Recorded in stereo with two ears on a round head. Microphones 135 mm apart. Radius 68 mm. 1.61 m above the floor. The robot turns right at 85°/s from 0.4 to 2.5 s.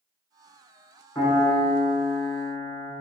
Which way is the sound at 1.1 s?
10° left.